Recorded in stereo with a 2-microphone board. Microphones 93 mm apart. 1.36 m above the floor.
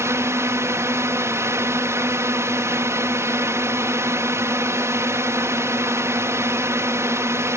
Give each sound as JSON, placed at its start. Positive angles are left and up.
{"t": 0.0, "sound": "a drone", "side_deg": -30}